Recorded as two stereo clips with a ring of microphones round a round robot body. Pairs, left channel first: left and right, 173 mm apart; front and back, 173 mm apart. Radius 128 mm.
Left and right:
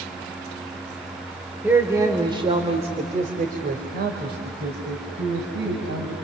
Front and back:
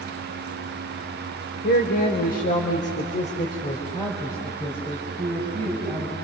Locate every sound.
1.6 s a man speaking: 10° right, 2.5 m; by 6.1 s 90° right, 4.5 m